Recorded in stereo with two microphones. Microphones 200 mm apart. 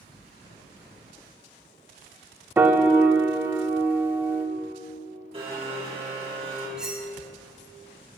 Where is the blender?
30° right (ahead or behind), 2.5 m.